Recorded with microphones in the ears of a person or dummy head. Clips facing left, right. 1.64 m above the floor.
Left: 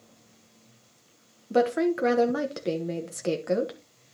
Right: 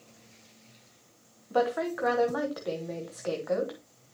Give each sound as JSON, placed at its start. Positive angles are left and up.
{"t": 1.5, "sound": "a woman speaking", "side_deg": 30, "distance_m": 0.9}